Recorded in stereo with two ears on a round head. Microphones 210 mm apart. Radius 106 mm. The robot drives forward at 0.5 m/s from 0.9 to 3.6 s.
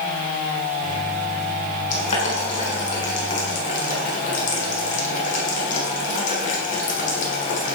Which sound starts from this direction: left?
Boiling, at 1.9 s.